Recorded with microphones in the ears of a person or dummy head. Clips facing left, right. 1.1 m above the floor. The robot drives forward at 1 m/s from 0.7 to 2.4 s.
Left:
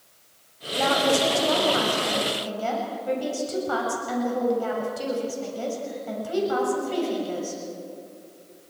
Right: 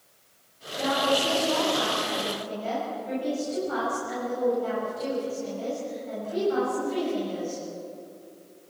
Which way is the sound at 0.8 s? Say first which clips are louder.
Left 3 dB; 80° left.